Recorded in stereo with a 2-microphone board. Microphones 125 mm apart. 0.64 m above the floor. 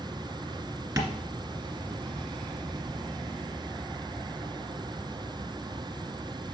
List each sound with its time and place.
1.0 s tapping: 20° right (ahead or behind), 1.7 m